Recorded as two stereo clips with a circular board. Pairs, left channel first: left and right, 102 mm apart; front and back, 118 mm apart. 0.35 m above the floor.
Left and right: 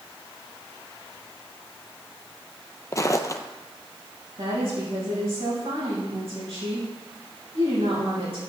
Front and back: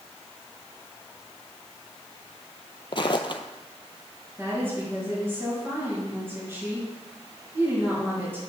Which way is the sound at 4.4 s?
110° right.